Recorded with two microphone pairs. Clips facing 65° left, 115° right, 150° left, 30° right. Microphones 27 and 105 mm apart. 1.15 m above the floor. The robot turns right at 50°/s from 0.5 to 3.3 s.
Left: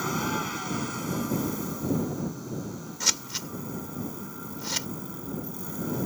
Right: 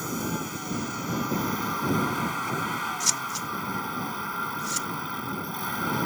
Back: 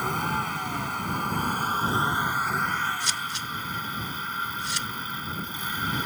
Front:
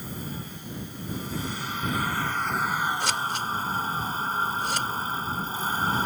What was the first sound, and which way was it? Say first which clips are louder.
A vehicle: left 2 dB, back 9 dB; 140° left.